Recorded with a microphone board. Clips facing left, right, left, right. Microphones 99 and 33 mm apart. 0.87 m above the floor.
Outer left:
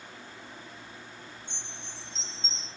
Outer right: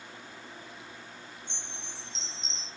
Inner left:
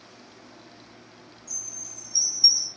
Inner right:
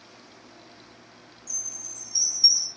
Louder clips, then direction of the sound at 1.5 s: Even, inner right 2 dB; 80° right.